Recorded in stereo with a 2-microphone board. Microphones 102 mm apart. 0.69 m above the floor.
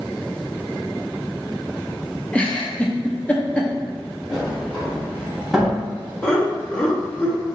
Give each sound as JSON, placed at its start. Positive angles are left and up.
{"t": 2.3, "sound": "a giggle", "side_deg": 15, "distance_m": 0.6}
{"t": 4.3, "sound": "a sliding door", "side_deg": 0, "distance_m": 1.6}
{"t": 6.2, "sound": "laughter", "side_deg": 10, "distance_m": 0.8}